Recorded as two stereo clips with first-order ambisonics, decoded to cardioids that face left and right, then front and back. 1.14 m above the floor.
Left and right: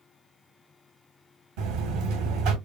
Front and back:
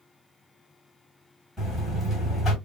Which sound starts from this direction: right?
A buzzer, at 1.6 s.